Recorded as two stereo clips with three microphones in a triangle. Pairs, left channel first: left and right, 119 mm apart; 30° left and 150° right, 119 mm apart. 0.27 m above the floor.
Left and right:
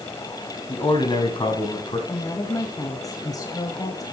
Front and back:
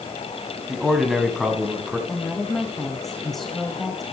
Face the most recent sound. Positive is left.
turn(degrees=115)